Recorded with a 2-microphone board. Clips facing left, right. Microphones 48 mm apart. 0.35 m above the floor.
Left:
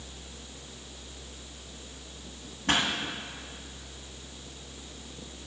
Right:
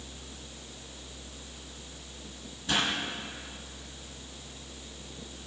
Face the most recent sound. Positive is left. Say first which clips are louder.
# left 2 dB
turn(degrees=65)  # may be behind; listen again after turning